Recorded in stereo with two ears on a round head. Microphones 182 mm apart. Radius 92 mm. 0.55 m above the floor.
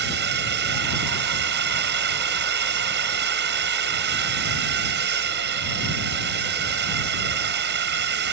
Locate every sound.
0.0 s a drone: 60° right (ahead or behind)